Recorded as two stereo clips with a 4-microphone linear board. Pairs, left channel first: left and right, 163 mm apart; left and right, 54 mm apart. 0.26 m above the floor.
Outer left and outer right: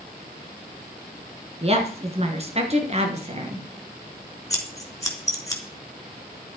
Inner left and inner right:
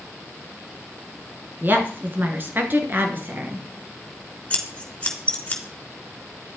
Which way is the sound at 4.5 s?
20° left (ahead or behind).